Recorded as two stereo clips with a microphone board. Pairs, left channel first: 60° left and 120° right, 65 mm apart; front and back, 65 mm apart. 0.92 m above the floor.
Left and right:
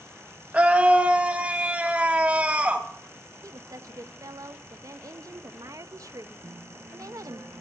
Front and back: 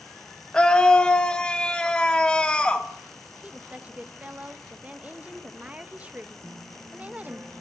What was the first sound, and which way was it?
A scream, 65° right.